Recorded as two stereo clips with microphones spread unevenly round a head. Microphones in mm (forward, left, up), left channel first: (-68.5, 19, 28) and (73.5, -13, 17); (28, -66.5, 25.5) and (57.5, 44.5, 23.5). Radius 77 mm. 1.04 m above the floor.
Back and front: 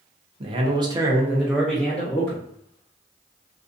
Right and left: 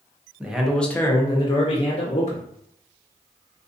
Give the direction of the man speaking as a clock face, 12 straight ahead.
12 o'clock.